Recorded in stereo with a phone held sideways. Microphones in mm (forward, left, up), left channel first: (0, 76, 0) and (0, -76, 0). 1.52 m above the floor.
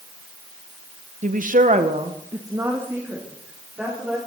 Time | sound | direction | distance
1.2 | a woman speaking | 55° right (ahead or behind) | 0.8 m